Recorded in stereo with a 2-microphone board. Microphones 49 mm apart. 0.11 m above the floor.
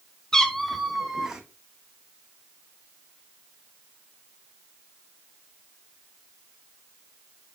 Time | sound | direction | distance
0.3 | a cat meowing | 15° left (ahead or behind) | 1.0 m